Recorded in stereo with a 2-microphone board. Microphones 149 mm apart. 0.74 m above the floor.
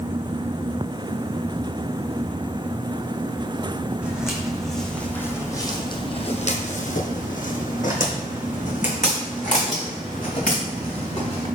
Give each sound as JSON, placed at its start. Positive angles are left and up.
{"t": 4.0, "sound": "footsteps", "side_deg": -5, "distance_m": 2.0}